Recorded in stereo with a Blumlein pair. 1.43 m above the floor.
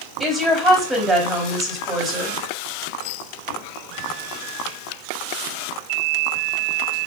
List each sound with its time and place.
0.2 s a woman speaking: 5° right, 3.5 m